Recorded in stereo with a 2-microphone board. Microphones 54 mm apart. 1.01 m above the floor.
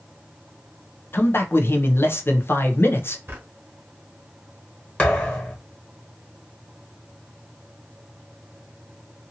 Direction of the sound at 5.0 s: 25° left (ahead or behind).